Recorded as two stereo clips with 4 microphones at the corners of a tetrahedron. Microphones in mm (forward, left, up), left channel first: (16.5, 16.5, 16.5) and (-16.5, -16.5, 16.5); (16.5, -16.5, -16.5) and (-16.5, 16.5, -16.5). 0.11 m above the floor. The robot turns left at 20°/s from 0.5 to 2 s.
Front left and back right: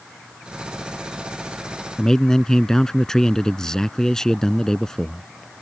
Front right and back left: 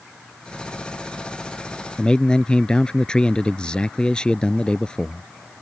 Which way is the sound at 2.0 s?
10° right.